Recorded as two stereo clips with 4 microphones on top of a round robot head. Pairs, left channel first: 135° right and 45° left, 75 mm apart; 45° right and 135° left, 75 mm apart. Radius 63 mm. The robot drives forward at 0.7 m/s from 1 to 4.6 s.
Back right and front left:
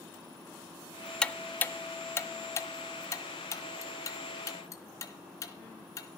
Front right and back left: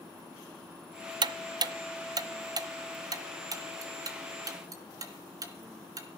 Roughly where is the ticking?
Behind left.